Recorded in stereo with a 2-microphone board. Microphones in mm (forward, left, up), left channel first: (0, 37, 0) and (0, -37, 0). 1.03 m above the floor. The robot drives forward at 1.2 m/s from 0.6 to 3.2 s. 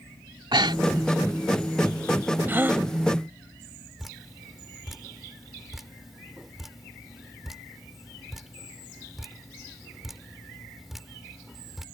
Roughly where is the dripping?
Centre.